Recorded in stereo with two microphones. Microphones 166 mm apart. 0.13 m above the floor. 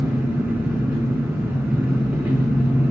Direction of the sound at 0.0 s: 10° right (ahead or behind).